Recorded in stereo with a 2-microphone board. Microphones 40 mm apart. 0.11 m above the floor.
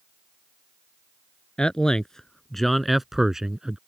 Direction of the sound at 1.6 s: 20° left (ahead or behind).